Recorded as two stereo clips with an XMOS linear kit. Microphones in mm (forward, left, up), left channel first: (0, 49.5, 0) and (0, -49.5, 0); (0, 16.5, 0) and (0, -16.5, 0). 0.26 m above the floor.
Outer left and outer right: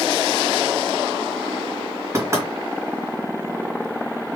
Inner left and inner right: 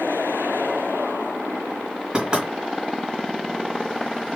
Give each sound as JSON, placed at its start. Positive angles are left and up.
{"t": 2.1, "sound": "knocking", "side_deg": -30, "distance_m": 2.5}